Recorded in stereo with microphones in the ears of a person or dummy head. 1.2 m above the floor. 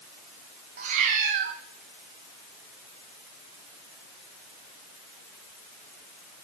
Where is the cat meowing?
40° right (ahead or behind), 1.3 m.